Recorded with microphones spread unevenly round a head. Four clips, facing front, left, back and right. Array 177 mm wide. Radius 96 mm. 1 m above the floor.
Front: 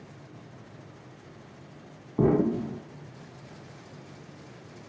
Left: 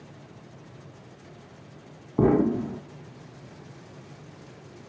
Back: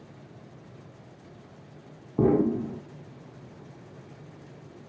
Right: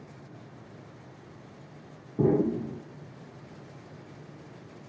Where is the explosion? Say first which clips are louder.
Left 4 dB, back 1 dB; 120° left, 0.7 m.